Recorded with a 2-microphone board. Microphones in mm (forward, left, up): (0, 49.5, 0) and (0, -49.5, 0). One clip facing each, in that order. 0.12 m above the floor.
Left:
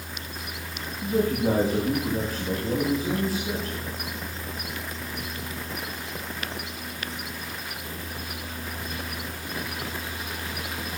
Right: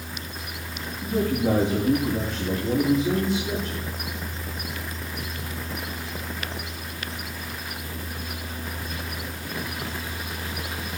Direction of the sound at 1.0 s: 5° left (ahead or behind).